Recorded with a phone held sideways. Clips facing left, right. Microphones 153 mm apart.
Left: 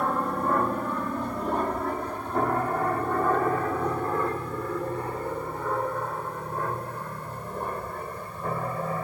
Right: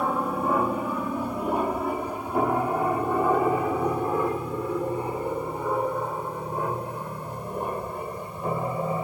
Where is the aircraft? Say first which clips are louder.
Right 1 dB; 5° right (ahead or behind); by 9.1 s 15° right (ahead or behind).